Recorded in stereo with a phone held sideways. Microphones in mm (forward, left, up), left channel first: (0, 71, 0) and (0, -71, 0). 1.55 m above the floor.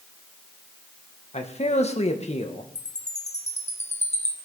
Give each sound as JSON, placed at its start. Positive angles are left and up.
{"t": 1.3, "sound": "a man speaking", "side_deg": 50, "distance_m": 1.6}
{"t": 2.8, "sound": "a chime", "side_deg": 50, "distance_m": 1.6}